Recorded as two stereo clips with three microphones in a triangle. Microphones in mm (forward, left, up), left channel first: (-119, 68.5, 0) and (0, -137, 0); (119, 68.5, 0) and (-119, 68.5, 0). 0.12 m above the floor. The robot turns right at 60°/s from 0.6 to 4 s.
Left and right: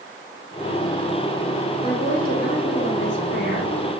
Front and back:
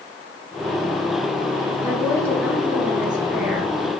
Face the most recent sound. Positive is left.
turn(degrees=-175)